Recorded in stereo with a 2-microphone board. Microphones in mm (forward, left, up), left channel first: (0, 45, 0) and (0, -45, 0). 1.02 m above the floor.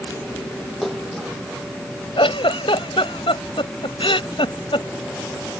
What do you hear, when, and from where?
0.8 s a splash: centre (ahead or behind)
2.2 s a giggle: 75° left (ahead or behind)